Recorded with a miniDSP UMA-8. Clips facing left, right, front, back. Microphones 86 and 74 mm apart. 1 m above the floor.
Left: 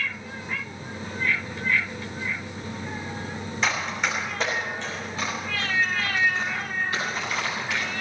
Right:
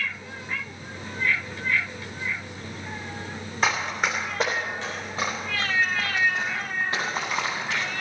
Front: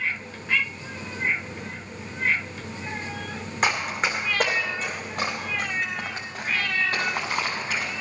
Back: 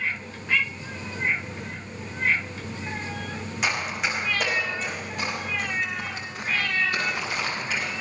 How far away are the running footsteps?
About 4 m.